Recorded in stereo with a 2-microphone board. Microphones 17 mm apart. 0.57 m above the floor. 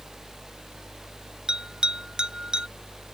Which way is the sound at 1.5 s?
60° right (ahead or behind).